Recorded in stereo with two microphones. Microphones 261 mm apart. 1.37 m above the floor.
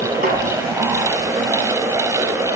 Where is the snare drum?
35° right (ahead or behind), 5 m.